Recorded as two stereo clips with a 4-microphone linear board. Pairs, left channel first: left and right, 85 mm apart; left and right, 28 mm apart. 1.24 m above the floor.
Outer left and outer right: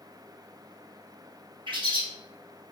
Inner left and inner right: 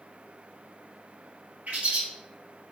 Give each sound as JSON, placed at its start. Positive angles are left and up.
{"t": 1.7, "sound": "a bird", "side_deg": -70, "distance_m": 0.9}